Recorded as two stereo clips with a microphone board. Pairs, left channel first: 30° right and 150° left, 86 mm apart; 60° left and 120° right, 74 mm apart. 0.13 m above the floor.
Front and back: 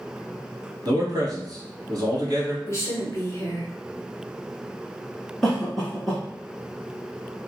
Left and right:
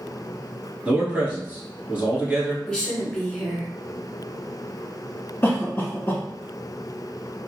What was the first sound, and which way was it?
A man speaking, 170° left.